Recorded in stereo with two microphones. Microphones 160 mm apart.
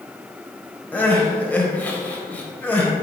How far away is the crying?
About 1.2 m.